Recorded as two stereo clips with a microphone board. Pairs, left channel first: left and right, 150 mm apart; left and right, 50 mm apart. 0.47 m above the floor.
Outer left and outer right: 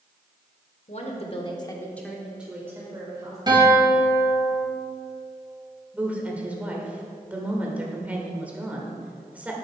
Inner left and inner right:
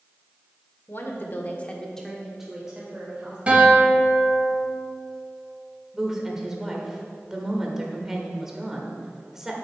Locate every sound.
0.9 s a woman speaking: 50° left (ahead or behind), 1.6 m; by 3.4 s 25° right (ahead or behind), 2.5 m
3.5 s a guitar: 30° right (ahead or behind), 3.5 m
5.9 s a woman speaking: 10° right (ahead or behind), 1.6 m